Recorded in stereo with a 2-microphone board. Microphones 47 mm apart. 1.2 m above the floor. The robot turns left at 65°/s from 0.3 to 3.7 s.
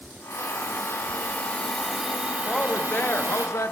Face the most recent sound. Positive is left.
turn(degrees=90)